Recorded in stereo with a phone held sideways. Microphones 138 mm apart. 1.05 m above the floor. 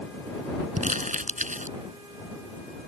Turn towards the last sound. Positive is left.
turn(degrees=-70)  # may be behind; listen again after turning